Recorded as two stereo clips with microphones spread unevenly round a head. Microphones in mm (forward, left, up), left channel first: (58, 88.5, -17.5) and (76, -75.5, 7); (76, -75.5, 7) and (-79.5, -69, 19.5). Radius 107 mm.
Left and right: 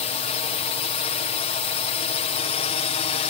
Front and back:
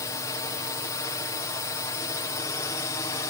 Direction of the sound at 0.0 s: 65° left.